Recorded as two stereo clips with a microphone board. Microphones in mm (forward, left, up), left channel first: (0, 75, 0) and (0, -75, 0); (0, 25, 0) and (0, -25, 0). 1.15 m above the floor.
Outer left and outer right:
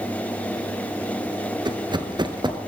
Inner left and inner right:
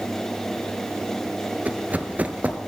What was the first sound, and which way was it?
Running footsteps, 30° right (ahead or behind).